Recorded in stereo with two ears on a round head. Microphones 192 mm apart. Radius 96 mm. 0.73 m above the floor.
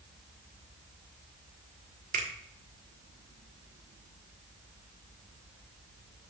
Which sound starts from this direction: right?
A finger snap, at 2.1 s.